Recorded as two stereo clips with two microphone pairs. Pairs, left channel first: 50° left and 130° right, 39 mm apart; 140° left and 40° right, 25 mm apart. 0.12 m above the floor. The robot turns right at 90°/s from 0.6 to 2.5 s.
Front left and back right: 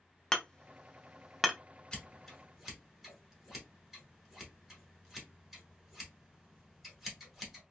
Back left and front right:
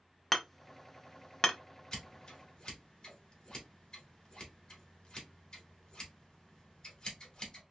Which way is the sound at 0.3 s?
65° left.